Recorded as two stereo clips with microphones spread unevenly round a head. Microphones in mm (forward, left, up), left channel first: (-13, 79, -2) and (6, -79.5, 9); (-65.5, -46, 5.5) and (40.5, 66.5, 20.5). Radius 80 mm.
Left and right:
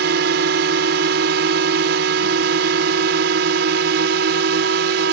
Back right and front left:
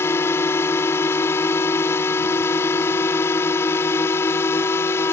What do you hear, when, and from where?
0.0 s a drone: 55° right